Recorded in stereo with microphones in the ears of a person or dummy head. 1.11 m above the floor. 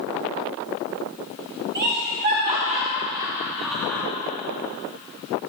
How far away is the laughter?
About 2.0 m.